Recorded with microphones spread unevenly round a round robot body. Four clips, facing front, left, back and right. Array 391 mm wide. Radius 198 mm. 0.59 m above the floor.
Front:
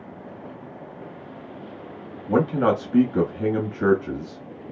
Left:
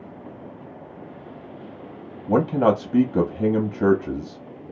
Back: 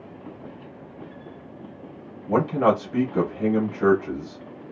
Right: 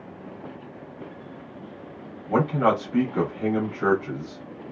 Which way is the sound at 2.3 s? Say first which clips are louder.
Left 3 dB, even; 75° left.